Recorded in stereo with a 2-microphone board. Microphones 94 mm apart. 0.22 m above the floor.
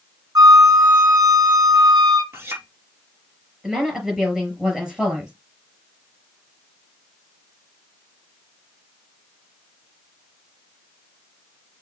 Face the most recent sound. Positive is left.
turn(degrees=-5)  # may be behind; listen again after turning